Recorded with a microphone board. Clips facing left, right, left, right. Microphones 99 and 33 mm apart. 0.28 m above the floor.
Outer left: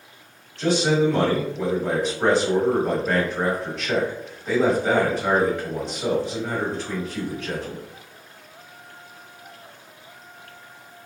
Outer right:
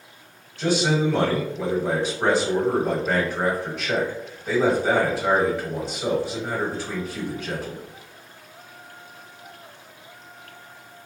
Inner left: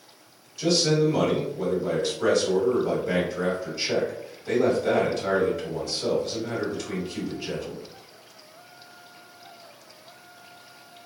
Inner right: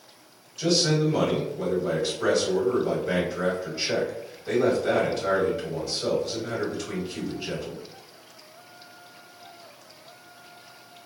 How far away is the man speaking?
About 1.5 m.